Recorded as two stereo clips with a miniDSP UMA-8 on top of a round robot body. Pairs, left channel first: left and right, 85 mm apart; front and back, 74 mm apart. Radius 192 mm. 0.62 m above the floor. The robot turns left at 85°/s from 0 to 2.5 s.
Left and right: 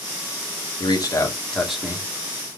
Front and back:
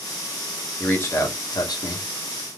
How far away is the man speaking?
About 2.5 m.